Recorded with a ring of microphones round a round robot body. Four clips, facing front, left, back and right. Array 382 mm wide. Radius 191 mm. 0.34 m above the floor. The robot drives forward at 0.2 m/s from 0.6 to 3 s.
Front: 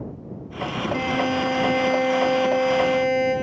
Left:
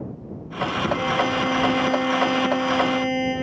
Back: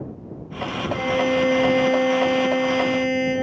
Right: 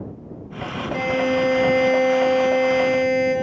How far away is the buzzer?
About 7.5 m.